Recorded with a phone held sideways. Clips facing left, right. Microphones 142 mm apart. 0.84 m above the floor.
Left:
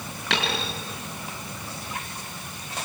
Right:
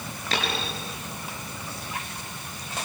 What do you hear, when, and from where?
0.3 s a dropped coin: 80° left, 5.5 m